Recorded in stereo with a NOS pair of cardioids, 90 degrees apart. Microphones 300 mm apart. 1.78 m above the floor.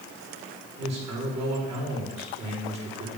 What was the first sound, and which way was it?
A man speaking, 60° right.